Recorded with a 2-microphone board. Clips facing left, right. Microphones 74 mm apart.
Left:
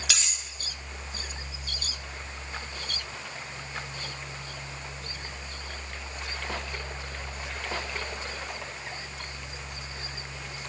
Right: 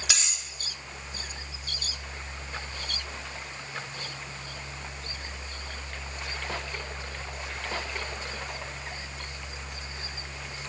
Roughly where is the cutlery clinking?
Centre.